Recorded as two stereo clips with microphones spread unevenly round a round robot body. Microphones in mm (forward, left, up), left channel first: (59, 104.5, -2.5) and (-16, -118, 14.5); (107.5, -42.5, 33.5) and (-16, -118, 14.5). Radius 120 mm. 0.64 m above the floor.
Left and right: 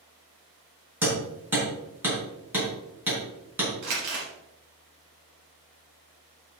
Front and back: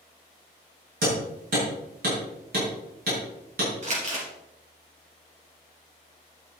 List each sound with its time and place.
1.0 s hammering: 170° left, 4.5 m
3.8 s crumpling: 110° right, 4 m